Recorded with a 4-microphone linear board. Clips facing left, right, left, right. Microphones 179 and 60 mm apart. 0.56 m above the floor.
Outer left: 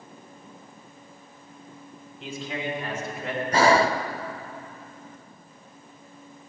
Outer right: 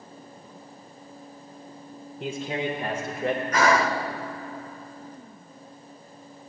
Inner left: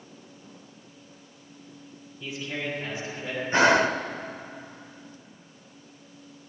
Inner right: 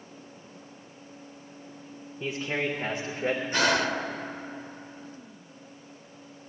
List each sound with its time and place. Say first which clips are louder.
2.2 s a man speaking: outer right 3 dB, inner right 3 dB; 50° right (ahead or behind), 1.1 m; by 3.4 s 60° right (ahead or behind), 1.7 m
3.5 s breathing: outer left 5 dB, inner left 7 dB; 30° left (ahead or behind), 0.5 m